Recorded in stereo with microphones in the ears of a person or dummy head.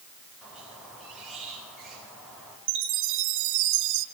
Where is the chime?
65° right (ahead or behind), 1.2 m.